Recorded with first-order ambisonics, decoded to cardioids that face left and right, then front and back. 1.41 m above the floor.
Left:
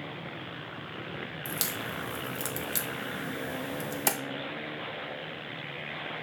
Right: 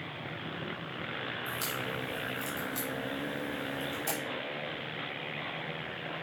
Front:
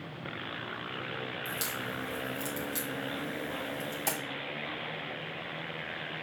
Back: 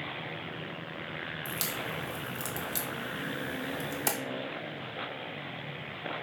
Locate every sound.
1.4 s a crack: 105° left, 1.1 m